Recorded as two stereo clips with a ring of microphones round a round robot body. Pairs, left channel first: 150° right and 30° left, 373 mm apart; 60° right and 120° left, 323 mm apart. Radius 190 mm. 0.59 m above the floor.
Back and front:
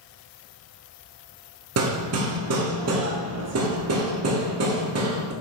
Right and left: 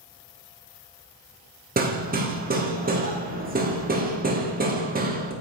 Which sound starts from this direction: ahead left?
Hammering, at 1.8 s.